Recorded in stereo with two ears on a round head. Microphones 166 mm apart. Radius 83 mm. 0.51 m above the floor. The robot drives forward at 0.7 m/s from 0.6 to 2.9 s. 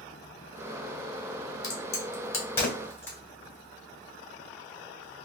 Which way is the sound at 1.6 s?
20° left (ahead or behind).